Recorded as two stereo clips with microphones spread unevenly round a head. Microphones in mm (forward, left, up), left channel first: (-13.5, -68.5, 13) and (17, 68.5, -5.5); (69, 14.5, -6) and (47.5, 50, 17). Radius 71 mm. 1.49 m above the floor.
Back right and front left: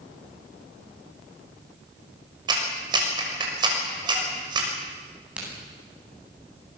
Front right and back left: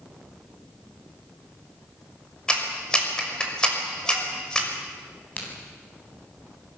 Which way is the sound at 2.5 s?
15° left.